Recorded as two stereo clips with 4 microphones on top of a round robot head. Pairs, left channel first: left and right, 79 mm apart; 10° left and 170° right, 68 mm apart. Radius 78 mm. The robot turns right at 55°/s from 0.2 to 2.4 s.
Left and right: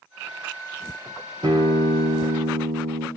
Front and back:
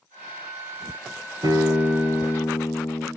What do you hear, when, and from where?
1.4 s a guitar: 125° right, 1.9 m; by 3.1 s 70° right, 1.9 m